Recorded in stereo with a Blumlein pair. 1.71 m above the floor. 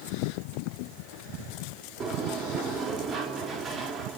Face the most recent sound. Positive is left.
turn(degrees=-20)